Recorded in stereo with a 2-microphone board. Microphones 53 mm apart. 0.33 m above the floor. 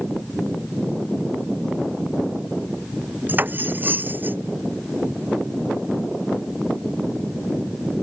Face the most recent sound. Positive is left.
turn(degrees=-35)  # may be behind; listen again after turning